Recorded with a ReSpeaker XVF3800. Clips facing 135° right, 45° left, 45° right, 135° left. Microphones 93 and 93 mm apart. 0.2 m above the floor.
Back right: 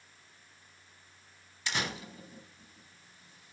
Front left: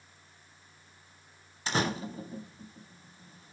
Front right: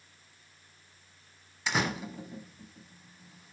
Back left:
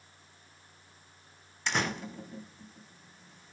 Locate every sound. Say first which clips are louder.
1.7 s a door slam: front left 6 dB, front right 1 dB; 40° left, 0.8 m